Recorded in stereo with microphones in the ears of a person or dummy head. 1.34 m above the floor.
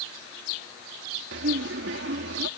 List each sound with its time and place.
1.3 s laughter: 65° right (ahead or behind)